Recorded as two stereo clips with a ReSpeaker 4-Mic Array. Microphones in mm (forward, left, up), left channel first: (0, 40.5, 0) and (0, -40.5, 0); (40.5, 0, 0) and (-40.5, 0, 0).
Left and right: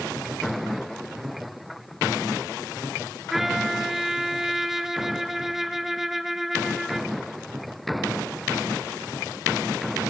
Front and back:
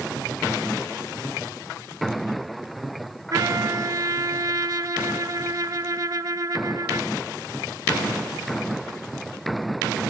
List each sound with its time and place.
3.3 s a trumpet: 175° right, 0.6 m